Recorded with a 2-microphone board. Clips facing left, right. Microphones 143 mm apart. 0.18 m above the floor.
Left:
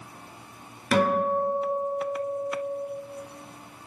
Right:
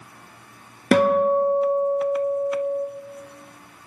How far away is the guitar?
About 0.7 m.